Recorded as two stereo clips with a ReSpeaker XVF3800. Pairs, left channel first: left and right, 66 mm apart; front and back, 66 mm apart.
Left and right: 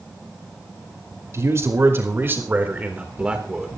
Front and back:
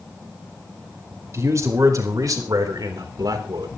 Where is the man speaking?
135° right, 4 m; by 3.7 s 170° right, 3 m.